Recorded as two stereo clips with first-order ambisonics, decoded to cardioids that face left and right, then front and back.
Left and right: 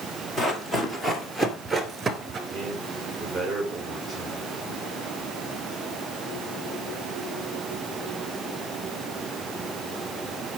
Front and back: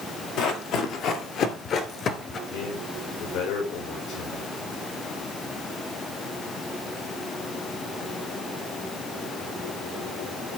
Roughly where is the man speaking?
Ahead.